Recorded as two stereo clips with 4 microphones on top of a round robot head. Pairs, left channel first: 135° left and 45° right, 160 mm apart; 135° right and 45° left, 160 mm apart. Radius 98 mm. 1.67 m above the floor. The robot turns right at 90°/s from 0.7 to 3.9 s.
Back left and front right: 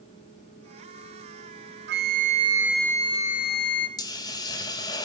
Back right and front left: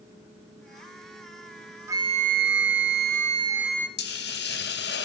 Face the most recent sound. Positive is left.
turn(degrees=-155)